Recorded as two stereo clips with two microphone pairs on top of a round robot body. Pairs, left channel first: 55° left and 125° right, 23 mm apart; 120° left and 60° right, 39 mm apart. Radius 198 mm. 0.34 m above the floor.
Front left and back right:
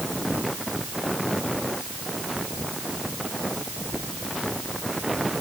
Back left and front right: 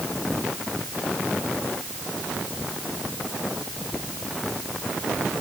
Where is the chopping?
I don't hear chopping.